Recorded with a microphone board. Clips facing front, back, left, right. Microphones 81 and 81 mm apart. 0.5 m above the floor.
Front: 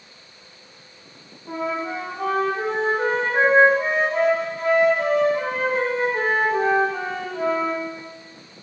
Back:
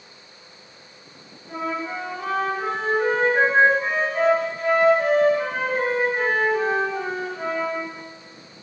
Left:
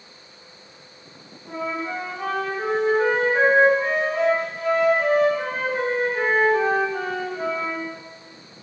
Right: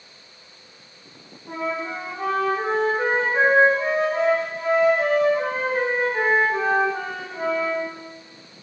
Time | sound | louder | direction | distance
1.5 | a flute | front 2 dB, even | 30° right | 1.5 m